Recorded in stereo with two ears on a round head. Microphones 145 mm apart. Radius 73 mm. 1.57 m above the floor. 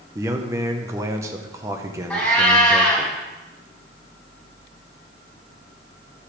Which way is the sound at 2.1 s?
10° left (ahead or behind).